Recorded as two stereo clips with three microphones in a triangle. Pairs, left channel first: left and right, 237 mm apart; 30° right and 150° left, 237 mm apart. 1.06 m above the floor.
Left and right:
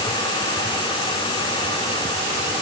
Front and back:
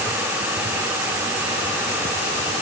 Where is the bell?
No bell in this recording.